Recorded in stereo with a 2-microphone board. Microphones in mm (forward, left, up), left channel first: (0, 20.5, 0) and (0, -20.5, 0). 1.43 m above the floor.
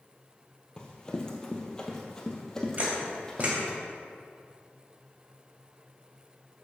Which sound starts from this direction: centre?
Running footsteps, at 0.8 s.